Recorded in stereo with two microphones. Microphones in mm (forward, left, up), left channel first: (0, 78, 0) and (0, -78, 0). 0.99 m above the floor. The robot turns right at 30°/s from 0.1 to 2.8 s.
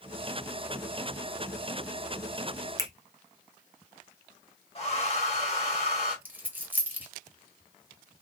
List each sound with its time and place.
2.8 s a finger snap: 25° left (ahead or behind), 0.5 m
4.8 s a hair dryer: 40° left (ahead or behind), 1.3 m
6.2 s a dropped coin: 10° right (ahead or behind), 0.9 m